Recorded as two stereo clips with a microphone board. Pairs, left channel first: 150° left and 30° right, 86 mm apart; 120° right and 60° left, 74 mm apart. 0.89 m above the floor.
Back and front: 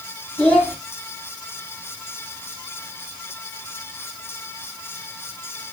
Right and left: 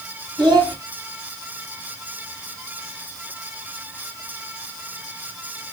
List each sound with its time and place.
0.4 s a child speaking: 75° left, 4 m